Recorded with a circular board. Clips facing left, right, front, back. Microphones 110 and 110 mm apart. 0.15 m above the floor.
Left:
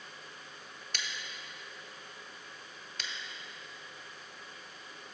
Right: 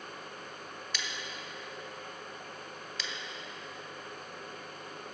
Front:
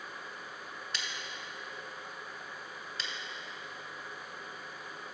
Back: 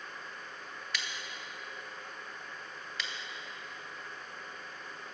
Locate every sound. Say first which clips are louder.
0.9 s scissors: right 1 dB, back 2 dB; 55° left, 0.7 m